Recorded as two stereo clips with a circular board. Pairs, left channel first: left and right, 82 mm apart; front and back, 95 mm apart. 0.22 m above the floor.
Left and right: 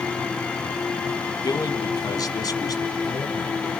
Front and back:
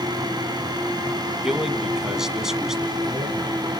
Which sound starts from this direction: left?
A man speaking, at 1.4 s.